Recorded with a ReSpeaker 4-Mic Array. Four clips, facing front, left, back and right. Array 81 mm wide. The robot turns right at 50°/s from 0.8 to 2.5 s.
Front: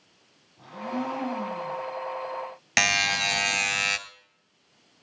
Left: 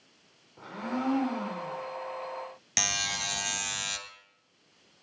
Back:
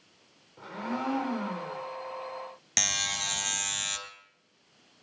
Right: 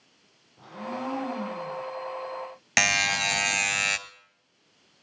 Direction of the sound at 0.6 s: 125° left.